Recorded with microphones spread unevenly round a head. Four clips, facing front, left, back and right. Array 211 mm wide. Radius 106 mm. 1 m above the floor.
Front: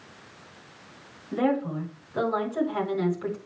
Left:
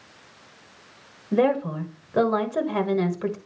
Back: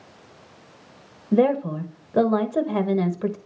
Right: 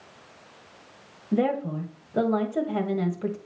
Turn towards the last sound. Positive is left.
turn(degrees=180)